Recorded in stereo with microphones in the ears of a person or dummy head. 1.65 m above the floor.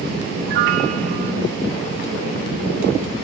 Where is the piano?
55° right (ahead or behind), 0.8 m.